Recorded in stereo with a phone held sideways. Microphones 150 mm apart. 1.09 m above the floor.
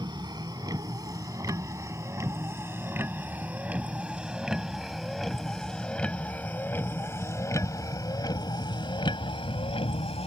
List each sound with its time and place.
0.0 s a vehicle: 30° right (ahead or behind); by 10.3 s 40° left (ahead or behind)